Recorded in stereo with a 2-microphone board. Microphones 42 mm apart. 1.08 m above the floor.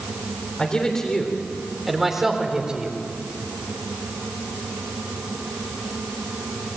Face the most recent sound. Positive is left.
turn(degrees=-30)  # may be behind; listen again after turning